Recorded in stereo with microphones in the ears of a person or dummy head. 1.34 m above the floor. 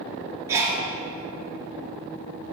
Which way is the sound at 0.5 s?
15° right (ahead or behind).